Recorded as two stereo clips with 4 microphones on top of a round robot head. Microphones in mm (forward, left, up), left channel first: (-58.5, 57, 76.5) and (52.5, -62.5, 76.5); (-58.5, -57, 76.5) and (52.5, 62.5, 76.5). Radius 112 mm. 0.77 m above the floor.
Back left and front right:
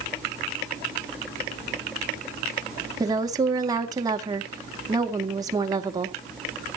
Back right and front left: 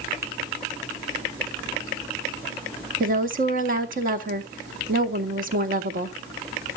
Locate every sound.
3.0 s a woman speaking: 20° left, 2 m